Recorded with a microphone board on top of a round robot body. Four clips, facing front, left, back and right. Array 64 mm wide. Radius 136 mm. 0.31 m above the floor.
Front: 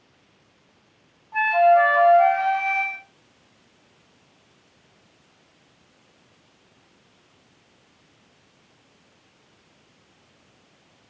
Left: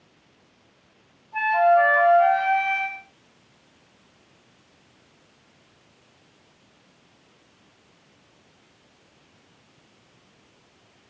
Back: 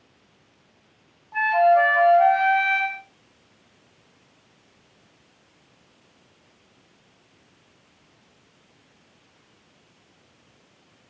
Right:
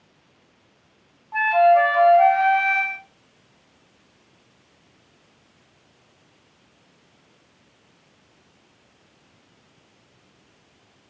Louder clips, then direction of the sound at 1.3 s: Right 2 dB, front 1 dB; 95° right.